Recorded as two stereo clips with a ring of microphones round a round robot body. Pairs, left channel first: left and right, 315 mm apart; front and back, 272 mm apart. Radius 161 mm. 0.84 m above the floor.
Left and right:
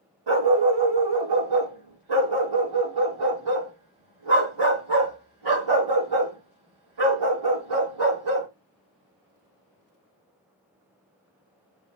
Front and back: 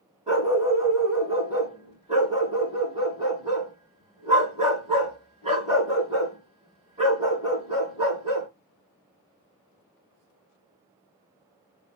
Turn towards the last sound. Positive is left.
turn(degrees=-105)